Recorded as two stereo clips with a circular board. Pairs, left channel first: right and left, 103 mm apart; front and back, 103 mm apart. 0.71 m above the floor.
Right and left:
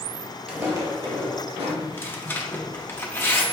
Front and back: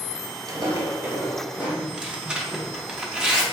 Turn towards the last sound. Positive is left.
turn(degrees=-110)